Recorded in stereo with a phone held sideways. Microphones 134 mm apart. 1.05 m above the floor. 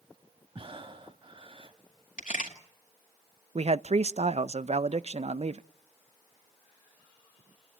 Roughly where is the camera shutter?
Left.